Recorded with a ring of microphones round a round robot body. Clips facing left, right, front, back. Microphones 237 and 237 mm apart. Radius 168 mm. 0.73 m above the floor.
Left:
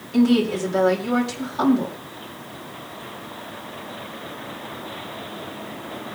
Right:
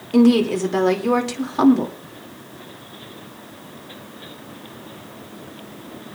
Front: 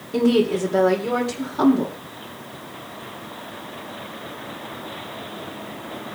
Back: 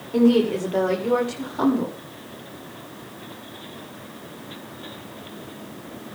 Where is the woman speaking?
75° right, 2.5 m.